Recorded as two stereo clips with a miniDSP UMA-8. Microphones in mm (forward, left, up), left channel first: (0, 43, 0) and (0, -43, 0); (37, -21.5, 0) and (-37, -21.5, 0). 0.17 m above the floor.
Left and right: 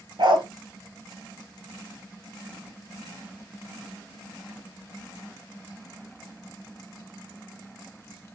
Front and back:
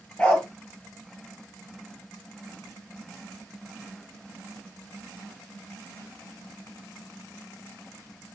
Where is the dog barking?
75° right, 1.4 m.